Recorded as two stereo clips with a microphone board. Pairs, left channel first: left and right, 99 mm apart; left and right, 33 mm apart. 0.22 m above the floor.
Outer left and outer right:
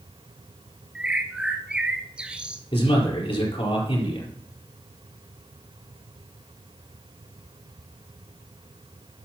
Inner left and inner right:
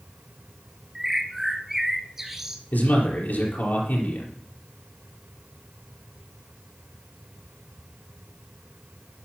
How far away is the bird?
About 1.3 m.